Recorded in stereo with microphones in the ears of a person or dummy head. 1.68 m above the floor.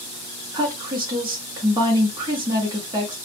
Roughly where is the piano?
No piano in this recording.